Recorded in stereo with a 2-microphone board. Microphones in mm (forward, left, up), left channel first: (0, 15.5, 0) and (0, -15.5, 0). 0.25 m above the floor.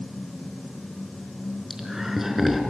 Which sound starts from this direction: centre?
Laughter, at 1.7 s.